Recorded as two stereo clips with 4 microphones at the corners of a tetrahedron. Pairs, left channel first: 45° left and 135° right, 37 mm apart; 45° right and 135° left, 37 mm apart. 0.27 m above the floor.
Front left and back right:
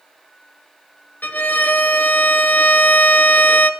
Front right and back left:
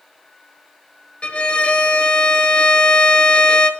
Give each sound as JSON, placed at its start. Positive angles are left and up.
{"t": 1.2, "sound": "a violin", "azimuth_deg": 15, "distance_m": 1.3}